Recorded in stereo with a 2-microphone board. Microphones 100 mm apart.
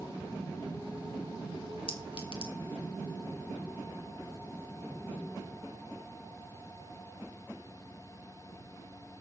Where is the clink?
60° left (ahead or behind), 2.5 m.